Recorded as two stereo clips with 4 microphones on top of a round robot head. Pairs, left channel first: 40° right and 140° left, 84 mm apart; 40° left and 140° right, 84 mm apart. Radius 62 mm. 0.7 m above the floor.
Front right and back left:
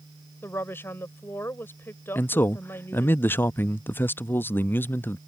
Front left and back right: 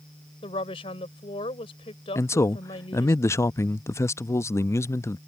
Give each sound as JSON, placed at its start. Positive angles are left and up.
{"t": 0.4, "sound": "a woman speaking", "azimuth_deg": 25}
{"t": 2.1, "sound": "a man speaking", "azimuth_deg": 10}